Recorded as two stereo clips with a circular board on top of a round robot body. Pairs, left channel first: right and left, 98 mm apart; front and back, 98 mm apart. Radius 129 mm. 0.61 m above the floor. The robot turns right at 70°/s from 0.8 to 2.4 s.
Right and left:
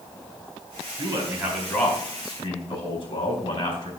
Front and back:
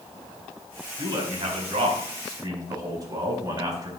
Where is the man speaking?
135° left, 4.5 m; by 3.9 s 125° right, 4.5 m.